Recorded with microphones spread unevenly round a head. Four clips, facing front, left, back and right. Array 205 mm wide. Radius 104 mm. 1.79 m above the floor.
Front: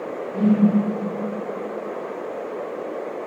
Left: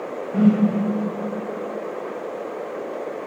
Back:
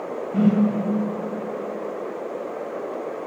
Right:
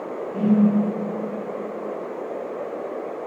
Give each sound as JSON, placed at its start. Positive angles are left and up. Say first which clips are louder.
{"t": 0.3, "sound": "a whoosh", "louder": "left 2 dB, even", "azimuth_deg": 140, "distance_m": 2.5}